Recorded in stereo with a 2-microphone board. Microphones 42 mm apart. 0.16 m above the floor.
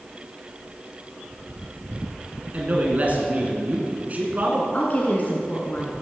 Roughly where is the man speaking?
Right.